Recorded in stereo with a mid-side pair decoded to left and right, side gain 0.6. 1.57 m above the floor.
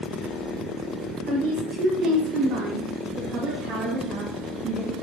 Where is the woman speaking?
70° right, 5.5 m; by 4.9 s 60° right, 3 m.